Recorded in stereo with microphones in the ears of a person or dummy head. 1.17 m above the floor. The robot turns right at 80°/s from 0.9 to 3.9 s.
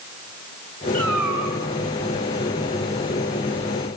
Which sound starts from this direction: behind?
A cat meowing, at 0.9 s.